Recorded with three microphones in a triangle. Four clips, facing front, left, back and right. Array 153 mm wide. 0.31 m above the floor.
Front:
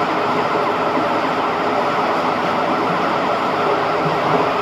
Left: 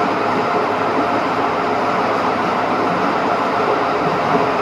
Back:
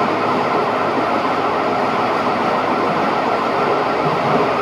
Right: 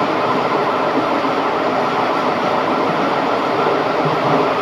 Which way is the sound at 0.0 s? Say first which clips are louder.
Right 1 dB, back 1 dB; 85° right.